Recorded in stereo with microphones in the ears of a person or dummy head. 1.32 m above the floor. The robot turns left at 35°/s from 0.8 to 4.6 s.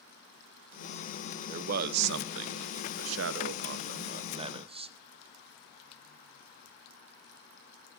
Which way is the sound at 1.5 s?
45° right.